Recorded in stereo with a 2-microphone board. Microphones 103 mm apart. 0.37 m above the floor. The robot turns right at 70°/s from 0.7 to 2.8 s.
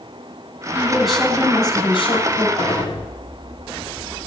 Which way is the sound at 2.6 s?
40° left (ahead or behind).